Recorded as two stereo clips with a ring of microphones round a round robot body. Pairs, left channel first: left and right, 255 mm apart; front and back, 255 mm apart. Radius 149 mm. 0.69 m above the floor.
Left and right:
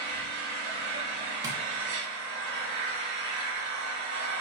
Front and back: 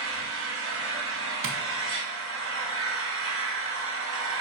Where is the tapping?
165° right, 0.8 m.